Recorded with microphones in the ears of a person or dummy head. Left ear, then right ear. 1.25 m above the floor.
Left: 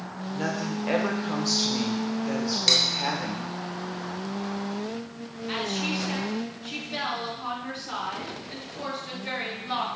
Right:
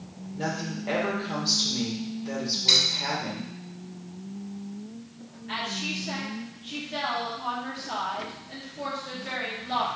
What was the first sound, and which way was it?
A woman speaking, 55° left (ahead or behind).